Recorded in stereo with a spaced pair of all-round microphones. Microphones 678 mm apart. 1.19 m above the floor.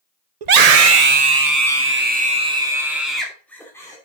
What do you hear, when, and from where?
0.4 s a scream: 80° right, 0.9 m; by 4.0 s 5° left (ahead or behind), 3 m